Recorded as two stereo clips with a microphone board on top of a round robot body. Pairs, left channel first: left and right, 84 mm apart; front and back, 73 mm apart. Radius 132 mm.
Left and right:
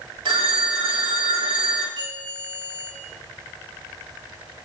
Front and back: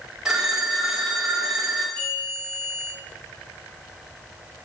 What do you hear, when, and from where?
0.2 s a phone ringing: 100° right, 1.8 m
2.0 s a bell: 75° right, 4.5 m